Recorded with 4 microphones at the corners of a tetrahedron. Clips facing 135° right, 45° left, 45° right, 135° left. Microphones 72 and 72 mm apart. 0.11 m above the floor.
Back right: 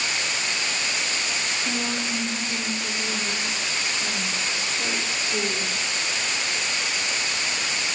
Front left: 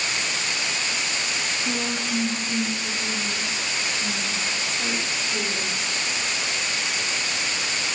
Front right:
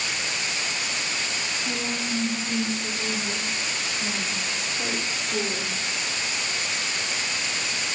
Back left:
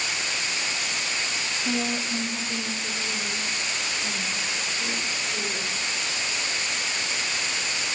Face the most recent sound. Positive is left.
turn(degrees=-55)